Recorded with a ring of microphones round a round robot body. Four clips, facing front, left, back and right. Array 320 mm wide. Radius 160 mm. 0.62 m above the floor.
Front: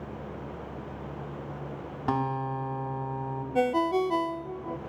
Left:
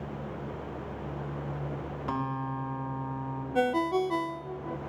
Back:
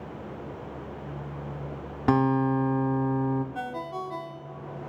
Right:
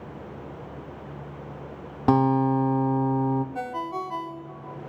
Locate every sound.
2.1 s a guitar: 110° right, 1.8 m
3.5 s a ringtone: 35° left, 1.2 m